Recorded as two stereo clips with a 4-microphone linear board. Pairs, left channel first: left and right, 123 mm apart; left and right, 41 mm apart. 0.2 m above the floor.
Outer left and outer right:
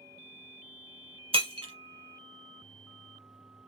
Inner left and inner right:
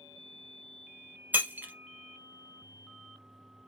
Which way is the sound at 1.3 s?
50° right (ahead or behind).